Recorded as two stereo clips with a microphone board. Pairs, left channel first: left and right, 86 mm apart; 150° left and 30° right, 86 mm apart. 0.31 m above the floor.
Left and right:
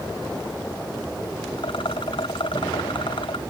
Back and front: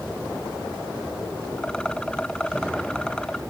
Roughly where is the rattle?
Left.